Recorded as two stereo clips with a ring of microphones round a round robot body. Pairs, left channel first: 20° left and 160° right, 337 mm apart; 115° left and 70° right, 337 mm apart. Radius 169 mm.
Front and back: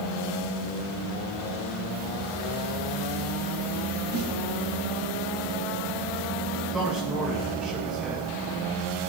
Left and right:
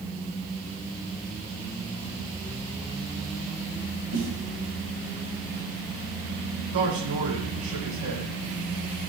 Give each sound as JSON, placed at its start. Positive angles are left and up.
{"t": 4.1, "sound": "a snare drum", "azimuth_deg": -120, "distance_m": 3.0}
{"t": 6.7, "sound": "a man speaking", "azimuth_deg": -70, "distance_m": 7.5}